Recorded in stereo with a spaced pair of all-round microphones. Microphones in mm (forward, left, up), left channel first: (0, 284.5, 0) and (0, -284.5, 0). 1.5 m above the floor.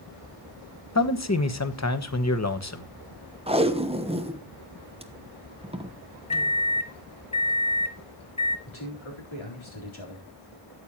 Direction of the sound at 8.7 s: 55° left (ahead or behind).